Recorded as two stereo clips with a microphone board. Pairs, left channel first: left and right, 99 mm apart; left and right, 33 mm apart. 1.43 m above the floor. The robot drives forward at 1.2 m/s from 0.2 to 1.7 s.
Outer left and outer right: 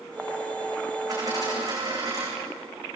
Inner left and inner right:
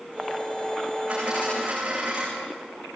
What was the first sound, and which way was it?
A dropped coin, 35° right (ahead or behind).